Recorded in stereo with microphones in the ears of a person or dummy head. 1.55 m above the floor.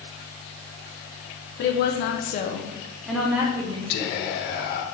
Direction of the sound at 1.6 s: 55° left (ahead or behind).